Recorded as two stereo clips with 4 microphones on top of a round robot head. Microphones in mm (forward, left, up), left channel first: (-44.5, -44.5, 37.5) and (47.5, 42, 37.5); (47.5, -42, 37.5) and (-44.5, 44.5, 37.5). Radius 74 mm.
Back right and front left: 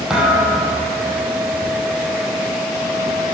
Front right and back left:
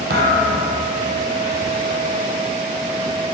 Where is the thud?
130° left, 3.5 m.